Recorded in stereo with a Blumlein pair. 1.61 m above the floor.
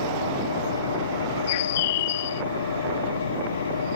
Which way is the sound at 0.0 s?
70° left.